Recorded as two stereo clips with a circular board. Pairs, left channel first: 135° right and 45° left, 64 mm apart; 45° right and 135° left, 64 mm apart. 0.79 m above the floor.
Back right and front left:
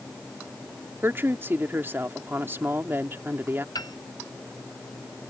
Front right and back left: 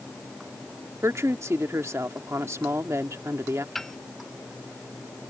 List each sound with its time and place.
1.0 s a woman speaking: 100° left
3.8 s a piano: 130° right